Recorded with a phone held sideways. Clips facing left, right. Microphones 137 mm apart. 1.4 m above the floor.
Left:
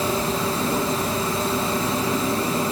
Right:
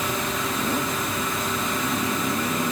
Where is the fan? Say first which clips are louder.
Left 4 dB; 30° left (ahead or behind), 1.6 m.